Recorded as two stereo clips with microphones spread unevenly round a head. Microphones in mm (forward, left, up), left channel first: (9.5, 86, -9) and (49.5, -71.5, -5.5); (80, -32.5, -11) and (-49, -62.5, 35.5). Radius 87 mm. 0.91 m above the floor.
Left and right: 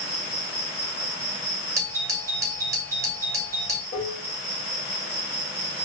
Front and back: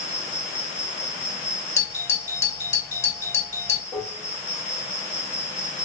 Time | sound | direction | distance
0.0 | an insect | 90° left | 2.5 m
1.8 | a doorbell | 10° right | 1.7 m
3.9 | dishes clattering | 85° left | 1.7 m